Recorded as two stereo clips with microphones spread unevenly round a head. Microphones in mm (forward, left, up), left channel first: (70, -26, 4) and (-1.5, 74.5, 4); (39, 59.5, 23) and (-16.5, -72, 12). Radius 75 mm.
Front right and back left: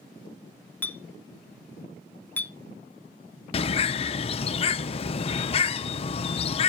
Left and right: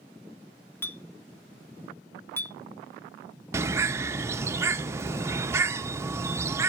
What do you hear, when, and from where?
0.8 s a clink: 10° left, 0.6 m
3.5 s a bird: 40° right, 0.6 m